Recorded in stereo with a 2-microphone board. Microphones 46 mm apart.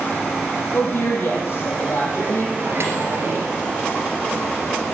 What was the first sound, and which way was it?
A woman speaking, 55° left (ahead or behind).